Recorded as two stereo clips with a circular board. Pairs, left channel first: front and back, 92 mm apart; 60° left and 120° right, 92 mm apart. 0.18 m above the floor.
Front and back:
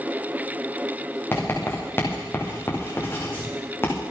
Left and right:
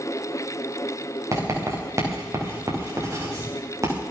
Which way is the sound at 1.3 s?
65° right.